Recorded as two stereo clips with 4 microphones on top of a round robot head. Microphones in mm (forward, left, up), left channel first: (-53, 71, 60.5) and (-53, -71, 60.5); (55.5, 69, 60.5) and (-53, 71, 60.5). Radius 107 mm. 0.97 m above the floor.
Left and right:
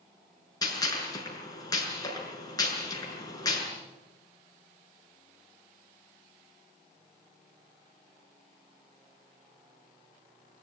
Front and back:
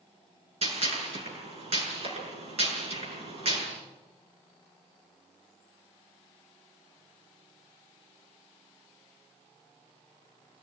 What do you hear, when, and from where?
0.6 s a gunshot: 155° left, 6.5 m